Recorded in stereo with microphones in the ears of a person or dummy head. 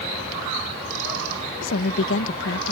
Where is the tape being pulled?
No tape being pulled in this recording.